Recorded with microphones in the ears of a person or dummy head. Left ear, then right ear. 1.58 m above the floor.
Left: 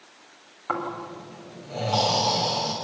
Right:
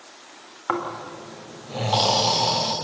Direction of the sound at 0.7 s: 20° right (ahead or behind).